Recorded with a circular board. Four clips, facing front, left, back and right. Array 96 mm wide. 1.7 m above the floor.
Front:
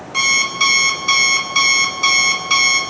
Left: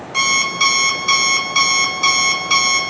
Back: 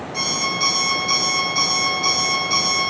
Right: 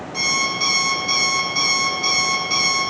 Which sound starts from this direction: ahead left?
An alarm clock, at 0.1 s.